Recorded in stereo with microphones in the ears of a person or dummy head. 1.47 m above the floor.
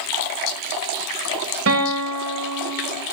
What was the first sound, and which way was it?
A guitar, 80° right.